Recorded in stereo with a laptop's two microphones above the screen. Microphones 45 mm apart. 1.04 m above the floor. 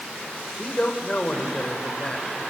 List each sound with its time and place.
0.6 s a man speaking: 30° left (ahead or behind), 5 m